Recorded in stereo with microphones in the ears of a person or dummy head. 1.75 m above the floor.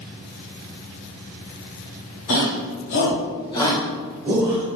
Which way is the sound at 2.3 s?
70° left (ahead or behind).